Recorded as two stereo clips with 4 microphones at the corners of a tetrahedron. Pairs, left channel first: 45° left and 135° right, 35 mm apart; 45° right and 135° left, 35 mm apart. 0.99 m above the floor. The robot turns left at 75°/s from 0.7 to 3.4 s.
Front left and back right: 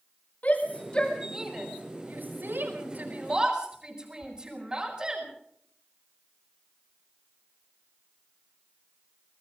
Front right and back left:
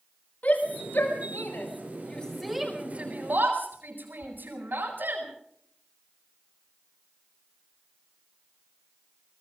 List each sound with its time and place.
0.4 s a shout: straight ahead, 4.5 m; by 5.2 s 160° left, 4.5 m